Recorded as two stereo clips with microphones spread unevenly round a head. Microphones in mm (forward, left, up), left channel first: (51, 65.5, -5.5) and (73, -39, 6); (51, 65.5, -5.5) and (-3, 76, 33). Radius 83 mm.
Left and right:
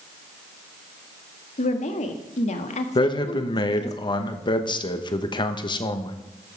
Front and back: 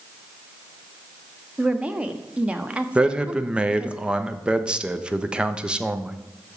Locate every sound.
1.6 s a woman speaking: 95° left, 1.4 m
3.0 s a man speaking: 75° left, 1.2 m